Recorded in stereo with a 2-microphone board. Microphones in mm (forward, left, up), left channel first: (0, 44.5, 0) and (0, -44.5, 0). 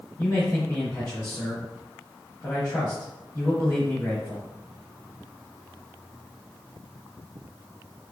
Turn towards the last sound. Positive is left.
turn(degrees=30)  # may be behind; listen again after turning